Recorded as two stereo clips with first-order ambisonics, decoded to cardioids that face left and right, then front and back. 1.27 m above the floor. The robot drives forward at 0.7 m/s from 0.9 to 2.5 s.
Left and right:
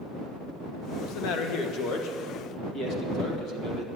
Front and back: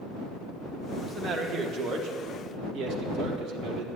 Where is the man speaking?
100° left, 1.1 m; by 3.9 s 140° left, 1.7 m.